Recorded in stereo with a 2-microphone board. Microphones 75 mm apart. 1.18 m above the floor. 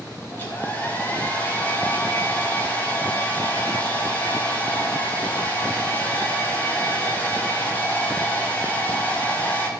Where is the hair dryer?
25° left (ahead or behind), 3 m.